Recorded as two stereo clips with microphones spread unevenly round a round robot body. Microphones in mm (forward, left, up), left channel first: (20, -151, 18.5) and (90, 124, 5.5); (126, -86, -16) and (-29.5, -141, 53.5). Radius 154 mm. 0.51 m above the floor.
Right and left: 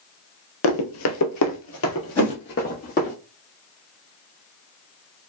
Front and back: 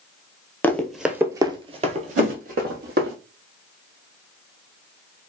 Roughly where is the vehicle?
I don't hear a vehicle.